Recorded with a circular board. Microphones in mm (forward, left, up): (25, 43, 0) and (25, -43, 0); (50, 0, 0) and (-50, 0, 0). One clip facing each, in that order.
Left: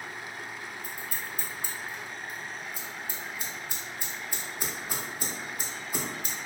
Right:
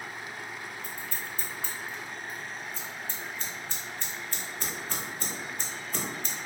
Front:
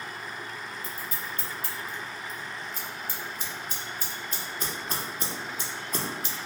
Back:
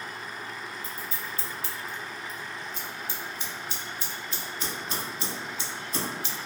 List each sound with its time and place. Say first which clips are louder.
0.8 s scissors: even, even; 15° left, 0.5 m